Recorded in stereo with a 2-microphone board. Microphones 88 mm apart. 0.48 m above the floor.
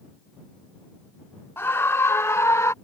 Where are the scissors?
No scissors in this recording.